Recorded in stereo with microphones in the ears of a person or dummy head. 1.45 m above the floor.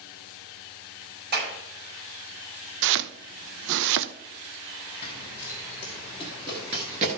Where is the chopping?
65° right (ahead or behind), 0.6 m.